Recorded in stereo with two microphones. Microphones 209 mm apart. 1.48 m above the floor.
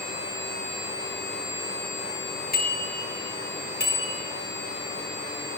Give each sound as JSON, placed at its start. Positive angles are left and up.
{"t": 2.5, "sound": "a bicycle bell", "side_deg": 45, "distance_m": 9.0}